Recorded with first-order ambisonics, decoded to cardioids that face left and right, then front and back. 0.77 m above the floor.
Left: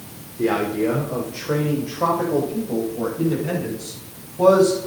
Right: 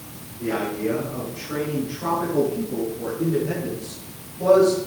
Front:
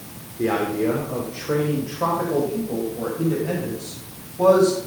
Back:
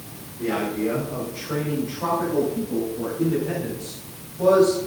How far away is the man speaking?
About 2.5 m.